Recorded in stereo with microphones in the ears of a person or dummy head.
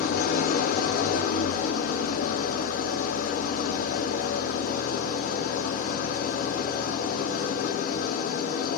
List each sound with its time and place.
0.0 s an engine running: 50° left (ahead or behind), 0.7 m